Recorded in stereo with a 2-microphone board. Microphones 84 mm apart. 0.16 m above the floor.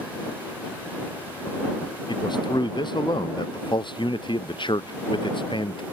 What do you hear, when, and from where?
2.1 s a man speaking: 60° left (ahead or behind); by 5.8 s 70° left (ahead or behind)